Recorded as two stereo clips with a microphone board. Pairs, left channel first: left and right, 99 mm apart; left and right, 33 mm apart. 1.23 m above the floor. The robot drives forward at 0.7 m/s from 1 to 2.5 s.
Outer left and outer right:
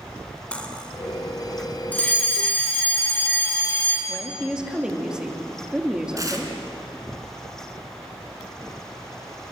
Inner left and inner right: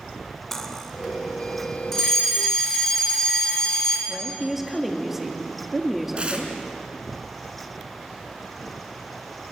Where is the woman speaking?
10° right (ahead or behind), 2.5 m.